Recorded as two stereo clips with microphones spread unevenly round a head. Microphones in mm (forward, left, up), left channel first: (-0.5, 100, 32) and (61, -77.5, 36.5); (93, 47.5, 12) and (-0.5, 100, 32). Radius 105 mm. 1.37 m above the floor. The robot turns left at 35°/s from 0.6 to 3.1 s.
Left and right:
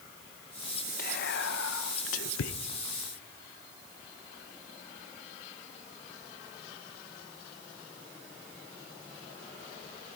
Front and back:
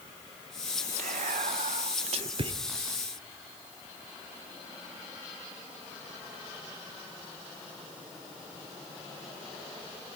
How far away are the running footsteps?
I don't hear running footsteps.